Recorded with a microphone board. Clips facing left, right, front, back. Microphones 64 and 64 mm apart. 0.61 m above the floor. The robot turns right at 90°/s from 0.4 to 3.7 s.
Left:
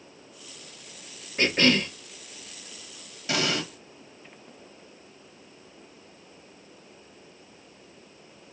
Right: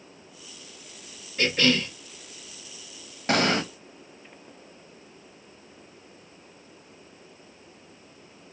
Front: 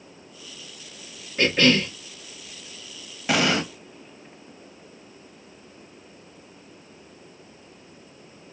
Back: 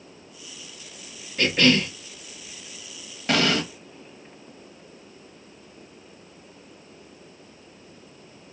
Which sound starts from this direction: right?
An explosion, at 3.3 s.